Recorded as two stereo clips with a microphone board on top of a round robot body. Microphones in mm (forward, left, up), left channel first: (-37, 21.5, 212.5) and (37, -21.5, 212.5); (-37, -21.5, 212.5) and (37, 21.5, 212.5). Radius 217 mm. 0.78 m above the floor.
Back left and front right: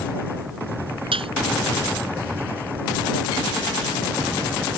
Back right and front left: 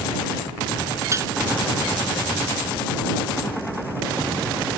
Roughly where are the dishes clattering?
Ahead right.